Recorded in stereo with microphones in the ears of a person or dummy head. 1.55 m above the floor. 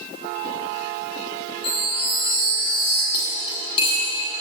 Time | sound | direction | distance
1.6 | a chime | 60° left (ahead or behind) | 8.5 m
3.1 | cutlery clinking | 30° left (ahead or behind) | 7 m